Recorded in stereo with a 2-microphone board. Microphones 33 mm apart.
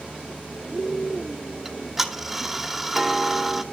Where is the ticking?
10° right (ahead or behind), 1.6 m.